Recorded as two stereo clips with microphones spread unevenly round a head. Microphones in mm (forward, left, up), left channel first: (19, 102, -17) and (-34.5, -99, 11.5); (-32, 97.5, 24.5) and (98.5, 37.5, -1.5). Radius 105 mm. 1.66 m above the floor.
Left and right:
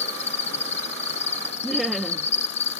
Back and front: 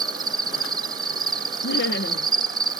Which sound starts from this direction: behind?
Laughter, at 1.6 s.